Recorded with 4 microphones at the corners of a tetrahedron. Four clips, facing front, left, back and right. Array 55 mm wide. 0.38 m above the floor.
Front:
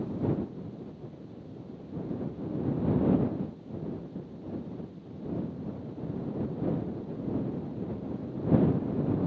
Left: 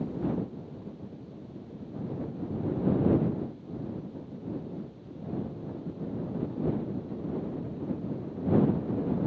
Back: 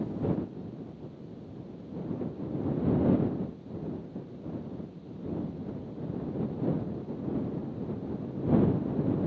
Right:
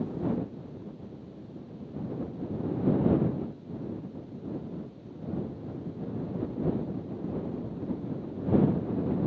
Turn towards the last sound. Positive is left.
No sound to turn to.